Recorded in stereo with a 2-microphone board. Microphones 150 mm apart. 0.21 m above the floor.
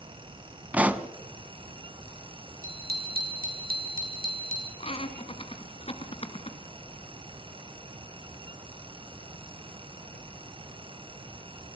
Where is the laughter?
40° left (ahead or behind), 3 m.